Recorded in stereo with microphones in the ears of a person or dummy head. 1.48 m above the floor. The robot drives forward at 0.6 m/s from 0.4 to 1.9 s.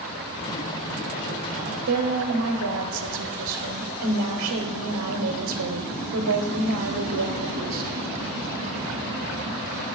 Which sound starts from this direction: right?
A woman speaking, at 1.9 s.